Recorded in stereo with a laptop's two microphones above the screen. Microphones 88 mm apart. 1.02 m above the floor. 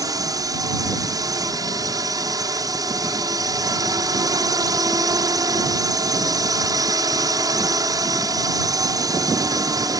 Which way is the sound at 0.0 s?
45° right (ahead or behind).